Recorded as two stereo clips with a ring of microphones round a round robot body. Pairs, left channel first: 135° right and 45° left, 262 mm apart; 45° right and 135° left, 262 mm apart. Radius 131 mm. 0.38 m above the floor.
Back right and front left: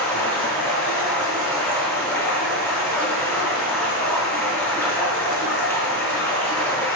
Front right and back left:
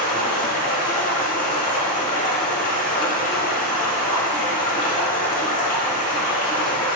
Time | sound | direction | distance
0.0 | running water | 60° right | 0.9 m